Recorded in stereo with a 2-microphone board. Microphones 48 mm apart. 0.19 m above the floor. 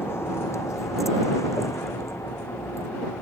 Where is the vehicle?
50° left (ahead or behind); by 3.2 s 60° left (ahead or behind).